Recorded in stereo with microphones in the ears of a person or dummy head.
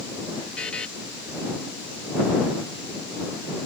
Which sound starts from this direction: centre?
A buzzer, at 0.6 s.